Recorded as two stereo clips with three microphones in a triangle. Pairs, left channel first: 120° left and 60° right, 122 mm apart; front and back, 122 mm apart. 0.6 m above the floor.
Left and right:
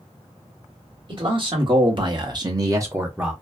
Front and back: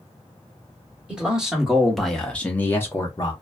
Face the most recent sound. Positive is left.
turn(degrees=15)